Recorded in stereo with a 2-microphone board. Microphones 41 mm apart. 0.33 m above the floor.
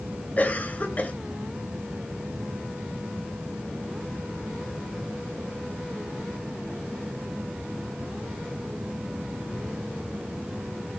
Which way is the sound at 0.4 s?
40° left (ahead or behind).